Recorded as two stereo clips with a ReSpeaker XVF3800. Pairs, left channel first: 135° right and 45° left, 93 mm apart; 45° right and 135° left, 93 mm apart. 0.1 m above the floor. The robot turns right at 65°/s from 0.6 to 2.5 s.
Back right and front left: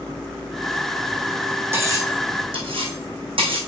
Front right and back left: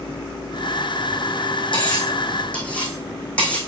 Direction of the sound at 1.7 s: 20° right.